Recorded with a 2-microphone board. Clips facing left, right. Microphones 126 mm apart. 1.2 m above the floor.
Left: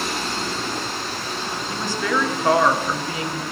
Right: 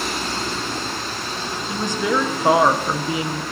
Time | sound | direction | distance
1.7 | a woman speaking | 20° right (ahead or behind) | 0.8 m